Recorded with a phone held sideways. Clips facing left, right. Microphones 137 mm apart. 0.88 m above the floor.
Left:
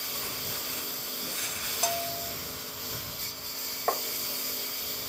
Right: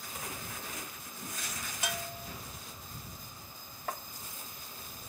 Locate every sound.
0.0 s a lawn mower: 90° left
1.8 s a bell: 35° left (ahead or behind)
3.9 s tapping: 80° left